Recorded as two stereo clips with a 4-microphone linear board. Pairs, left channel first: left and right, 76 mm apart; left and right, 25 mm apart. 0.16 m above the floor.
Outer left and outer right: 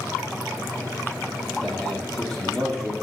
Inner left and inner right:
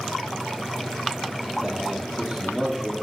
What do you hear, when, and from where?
1.6 s a man speaking: centre (ahead or behind), 4.5 m